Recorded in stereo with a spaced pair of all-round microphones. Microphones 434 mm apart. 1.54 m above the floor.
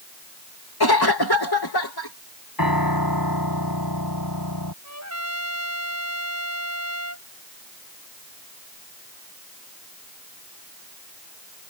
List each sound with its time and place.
0.8 s a cough: 60° left (ahead or behind)
2.6 s a piano: 55° left (ahead or behind)
4.8 s a trumpet: 40° right (ahead or behind)